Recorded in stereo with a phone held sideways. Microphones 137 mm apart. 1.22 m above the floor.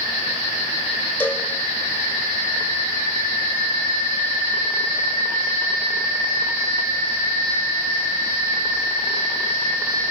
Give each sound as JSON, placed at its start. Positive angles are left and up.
{"t": 1.2, "sound": "a cowbell", "side_deg": 15, "distance_m": 2.0}